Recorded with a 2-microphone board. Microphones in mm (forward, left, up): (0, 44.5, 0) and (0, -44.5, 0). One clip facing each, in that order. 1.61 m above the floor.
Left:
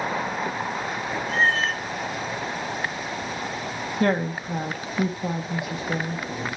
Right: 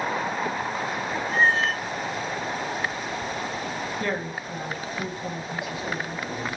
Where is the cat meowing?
15° right (ahead or behind), 1.2 m.